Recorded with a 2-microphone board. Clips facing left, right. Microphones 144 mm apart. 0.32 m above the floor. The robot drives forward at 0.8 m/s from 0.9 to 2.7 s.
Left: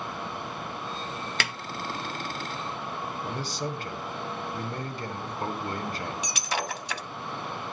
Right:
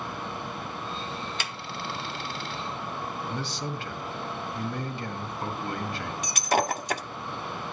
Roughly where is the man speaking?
Left.